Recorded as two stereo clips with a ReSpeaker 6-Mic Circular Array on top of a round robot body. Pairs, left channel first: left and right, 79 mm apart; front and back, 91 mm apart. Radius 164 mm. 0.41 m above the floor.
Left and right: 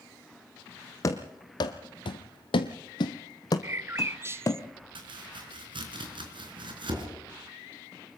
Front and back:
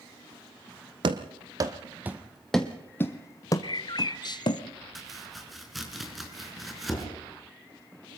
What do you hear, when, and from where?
1.0 s running footsteps: 140° left, 1.0 m; by 4.6 s 35° left, 1.4 m
3.6 s a bird: 35° right, 0.7 m
5.0 s chopping: 90° right, 4.5 m